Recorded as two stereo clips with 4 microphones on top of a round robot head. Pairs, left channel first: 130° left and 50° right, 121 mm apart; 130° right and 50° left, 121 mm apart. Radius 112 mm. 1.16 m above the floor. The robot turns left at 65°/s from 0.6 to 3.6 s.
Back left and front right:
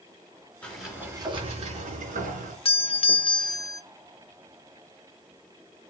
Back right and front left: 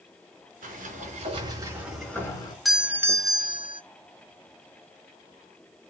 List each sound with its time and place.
0.6 s a sliding door: 50° left, 4.5 m; by 2.5 s 75° right, 4.5 m
2.6 s a doorbell: 140° left, 0.8 m; by 3.8 s 80° left, 0.8 m